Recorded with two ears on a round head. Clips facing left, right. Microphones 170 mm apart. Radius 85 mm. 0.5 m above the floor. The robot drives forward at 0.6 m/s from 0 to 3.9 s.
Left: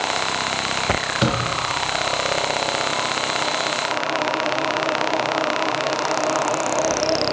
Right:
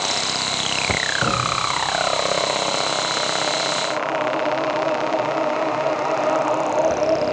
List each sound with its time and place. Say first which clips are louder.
1.2 s a door slam: left 3 dB; 30° left (ahead or behind), 8.5 m